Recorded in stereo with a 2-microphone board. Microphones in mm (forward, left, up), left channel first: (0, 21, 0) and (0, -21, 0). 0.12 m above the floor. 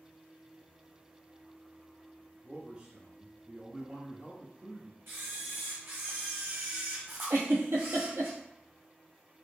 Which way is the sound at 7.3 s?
70° right (ahead or behind).